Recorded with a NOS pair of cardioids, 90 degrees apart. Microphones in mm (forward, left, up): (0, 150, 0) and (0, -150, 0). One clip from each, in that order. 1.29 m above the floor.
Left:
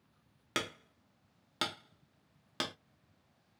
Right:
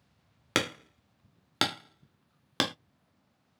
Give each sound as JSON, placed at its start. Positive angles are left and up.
{"t": 0.6, "sound": "hammering", "azimuth_deg": -45, "distance_m": 0.6}